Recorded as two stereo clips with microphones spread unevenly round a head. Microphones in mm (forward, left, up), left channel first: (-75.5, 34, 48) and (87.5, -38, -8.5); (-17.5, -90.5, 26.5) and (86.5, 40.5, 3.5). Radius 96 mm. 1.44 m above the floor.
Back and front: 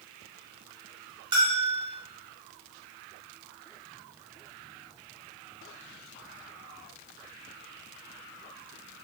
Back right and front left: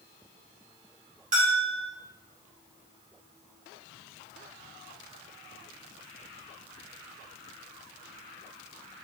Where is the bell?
55° left, 1.0 m.